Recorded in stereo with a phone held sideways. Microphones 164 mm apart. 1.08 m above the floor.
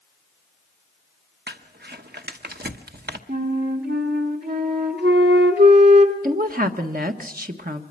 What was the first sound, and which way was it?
Crumpling, 75° right (ahead or behind).